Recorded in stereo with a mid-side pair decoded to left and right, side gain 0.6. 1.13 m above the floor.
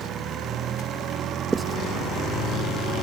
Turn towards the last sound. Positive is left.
turn(degrees=-25)